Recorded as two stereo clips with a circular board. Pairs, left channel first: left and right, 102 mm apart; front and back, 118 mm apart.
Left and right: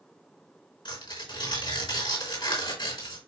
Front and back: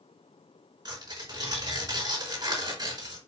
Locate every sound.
0.8 s tearing paper: 125° left, 4 m